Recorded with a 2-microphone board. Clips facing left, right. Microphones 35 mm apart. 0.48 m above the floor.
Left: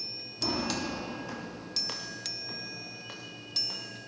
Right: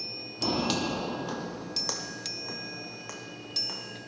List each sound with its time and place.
0.4 s footsteps: 35° right (ahead or behind), 0.9 m; by 4.0 s 75° right (ahead or behind), 3 m